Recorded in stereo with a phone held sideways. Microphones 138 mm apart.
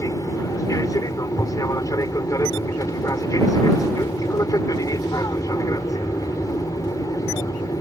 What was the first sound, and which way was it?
An aircraft, 25° left (ahead or behind).